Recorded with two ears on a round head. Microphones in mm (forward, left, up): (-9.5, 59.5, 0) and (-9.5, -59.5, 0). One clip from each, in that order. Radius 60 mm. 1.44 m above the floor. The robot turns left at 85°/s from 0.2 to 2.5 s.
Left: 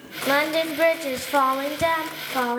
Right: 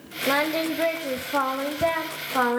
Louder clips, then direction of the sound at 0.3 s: Left 2 dB; 170° left.